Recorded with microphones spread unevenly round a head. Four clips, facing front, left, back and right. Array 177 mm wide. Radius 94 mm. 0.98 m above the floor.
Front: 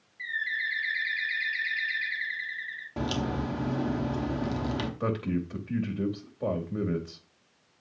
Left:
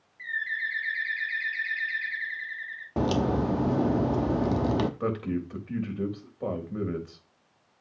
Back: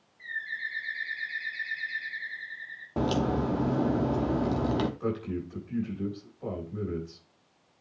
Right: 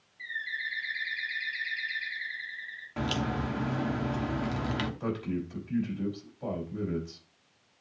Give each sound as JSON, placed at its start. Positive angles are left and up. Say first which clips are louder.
{"t": 0.2, "sound": "a bird", "louder": "left 5 dB, front 4 dB", "azimuth_deg": 30, "distance_m": 4.5}
{"t": 3.0, "sound": "a crack", "louder": "left 7 dB, back 4 dB", "azimuth_deg": 125, "distance_m": 0.7}
{"t": 5.0, "sound": "a man speaking", "louder": "left 3 dB, front 2 dB", "azimuth_deg": 35, "distance_m": 4.0}